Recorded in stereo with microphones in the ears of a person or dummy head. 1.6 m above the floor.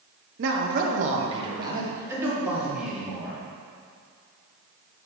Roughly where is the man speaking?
Right.